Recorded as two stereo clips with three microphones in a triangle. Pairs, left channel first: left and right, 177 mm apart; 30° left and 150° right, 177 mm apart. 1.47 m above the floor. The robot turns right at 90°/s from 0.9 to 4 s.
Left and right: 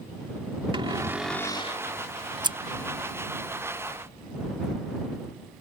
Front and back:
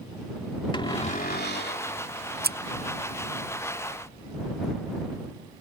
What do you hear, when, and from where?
0.7 s a cupboard door: 30° right; by 1.9 s 55° left
2.4 s scissors: 155° right; by 2.6 s 145° right